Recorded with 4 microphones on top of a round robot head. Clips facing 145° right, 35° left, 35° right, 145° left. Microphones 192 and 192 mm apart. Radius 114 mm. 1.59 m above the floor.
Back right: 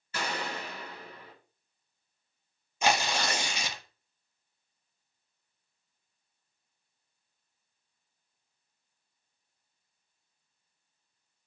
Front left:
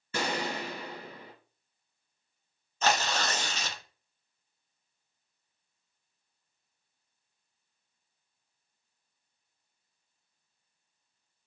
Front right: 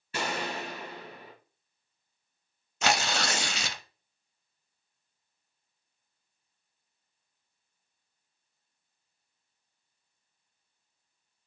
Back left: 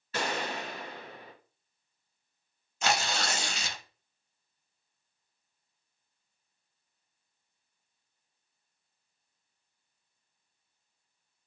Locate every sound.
0.1 s a gunshot: 40° left, 3 m
2.8 s tearing paper: 65° right, 0.5 m